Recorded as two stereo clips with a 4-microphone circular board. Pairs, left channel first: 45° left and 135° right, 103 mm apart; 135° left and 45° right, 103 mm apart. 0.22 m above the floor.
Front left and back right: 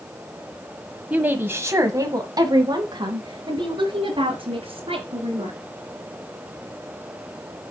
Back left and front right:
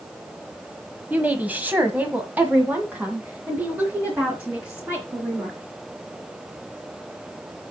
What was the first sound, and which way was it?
A woman speaking, 85° right.